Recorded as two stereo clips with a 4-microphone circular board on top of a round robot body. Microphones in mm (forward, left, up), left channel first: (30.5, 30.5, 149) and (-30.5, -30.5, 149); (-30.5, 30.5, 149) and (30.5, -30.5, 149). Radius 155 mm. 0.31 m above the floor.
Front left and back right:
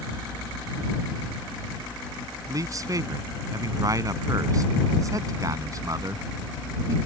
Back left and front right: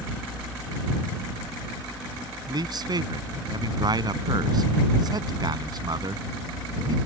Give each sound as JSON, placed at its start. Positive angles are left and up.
{"t": 2.5, "sound": "a man speaking", "azimuth_deg": -85}